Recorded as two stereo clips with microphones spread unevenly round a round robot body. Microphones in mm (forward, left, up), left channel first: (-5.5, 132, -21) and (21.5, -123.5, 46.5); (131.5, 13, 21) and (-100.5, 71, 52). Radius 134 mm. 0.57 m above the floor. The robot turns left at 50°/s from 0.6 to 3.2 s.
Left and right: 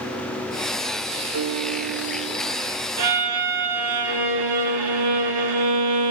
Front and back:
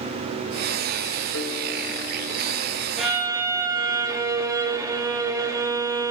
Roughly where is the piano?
Ahead right.